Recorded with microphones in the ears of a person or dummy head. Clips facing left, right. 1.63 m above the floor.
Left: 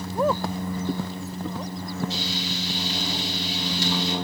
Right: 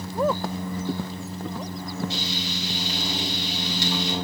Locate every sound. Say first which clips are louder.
2.1 s frying: left 1 dB; 60° right (ahead or behind), 4 m